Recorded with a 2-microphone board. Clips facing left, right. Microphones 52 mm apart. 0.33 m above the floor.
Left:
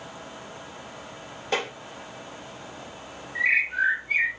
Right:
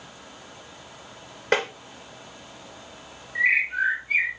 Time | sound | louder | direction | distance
1.5 | tapping | right 4 dB | 70° right (ahead or behind) | 1.7 m
3.4 | a bird | right 1 dB | 15° right (ahead or behind) | 1.0 m